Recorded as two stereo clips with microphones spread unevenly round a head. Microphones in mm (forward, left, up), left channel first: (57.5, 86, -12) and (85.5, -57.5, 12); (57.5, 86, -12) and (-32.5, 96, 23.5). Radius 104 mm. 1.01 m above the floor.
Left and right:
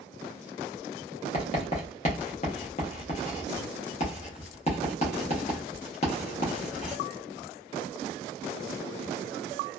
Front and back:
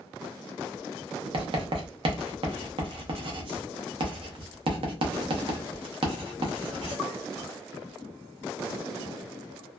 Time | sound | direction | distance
1.3 | writing | 165° left | 0.7 m